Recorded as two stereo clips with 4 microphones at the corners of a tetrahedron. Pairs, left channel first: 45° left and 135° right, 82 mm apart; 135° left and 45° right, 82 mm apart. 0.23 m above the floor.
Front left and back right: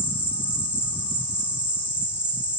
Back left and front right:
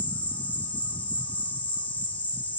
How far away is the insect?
About 1.5 m.